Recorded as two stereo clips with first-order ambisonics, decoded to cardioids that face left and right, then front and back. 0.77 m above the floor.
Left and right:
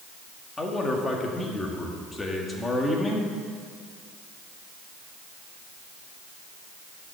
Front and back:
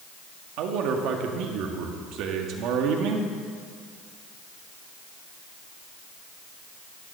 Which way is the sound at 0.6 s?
170° left.